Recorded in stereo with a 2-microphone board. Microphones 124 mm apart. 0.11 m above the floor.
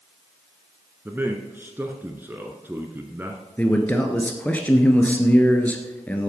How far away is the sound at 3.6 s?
About 1.3 m.